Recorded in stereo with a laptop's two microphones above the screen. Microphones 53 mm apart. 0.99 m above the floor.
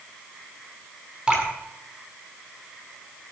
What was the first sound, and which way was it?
Dripping, 15° right (ahead or behind).